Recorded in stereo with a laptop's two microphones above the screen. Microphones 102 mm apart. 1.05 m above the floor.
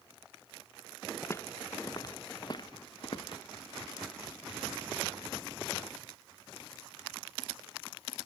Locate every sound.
1.2 s footsteps: 25° left (ahead or behind); by 3.4 s 55° left (ahead or behind)